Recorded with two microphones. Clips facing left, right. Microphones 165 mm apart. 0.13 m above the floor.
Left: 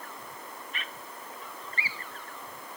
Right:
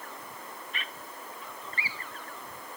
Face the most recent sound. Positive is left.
No sound to turn to.